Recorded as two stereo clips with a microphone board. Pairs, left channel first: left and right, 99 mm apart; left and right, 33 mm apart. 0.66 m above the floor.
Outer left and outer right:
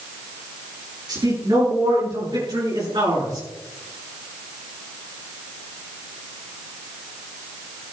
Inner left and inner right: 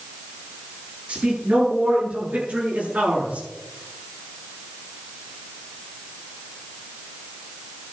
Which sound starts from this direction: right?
A man speaking, at 1.1 s.